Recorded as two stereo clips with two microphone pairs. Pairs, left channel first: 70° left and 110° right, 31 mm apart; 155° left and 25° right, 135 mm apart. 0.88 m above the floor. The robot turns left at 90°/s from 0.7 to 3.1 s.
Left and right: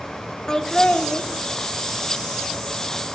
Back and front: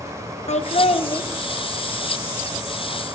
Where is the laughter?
135° left, 0.8 m; by 1.2 s 85° left, 0.8 m.